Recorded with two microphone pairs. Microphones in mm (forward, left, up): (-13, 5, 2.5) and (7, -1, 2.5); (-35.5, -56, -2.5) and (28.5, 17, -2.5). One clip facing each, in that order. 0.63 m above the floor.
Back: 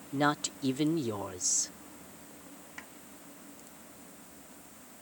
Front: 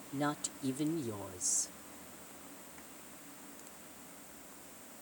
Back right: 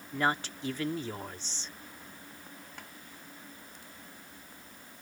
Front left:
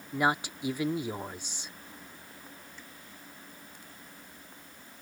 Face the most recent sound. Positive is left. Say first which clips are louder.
# back 7 dB, back right 2 dB
turn(degrees=-160)